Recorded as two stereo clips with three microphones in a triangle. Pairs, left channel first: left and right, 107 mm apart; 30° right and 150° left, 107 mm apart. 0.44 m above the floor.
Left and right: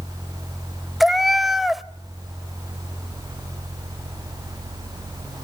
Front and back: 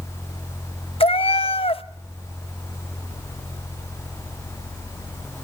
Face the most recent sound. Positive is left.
turn(degrees=0)